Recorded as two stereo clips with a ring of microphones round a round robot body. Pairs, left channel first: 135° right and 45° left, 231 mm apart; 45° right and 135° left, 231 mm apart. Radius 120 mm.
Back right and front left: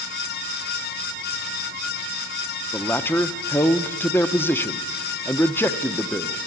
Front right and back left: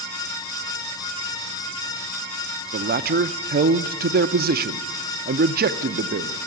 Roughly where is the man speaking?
Behind left.